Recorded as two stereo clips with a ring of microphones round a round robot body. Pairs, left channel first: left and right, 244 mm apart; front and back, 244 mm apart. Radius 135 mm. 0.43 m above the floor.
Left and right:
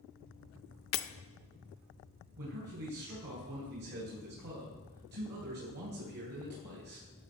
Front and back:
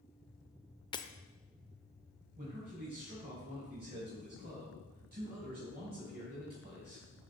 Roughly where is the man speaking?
Behind right.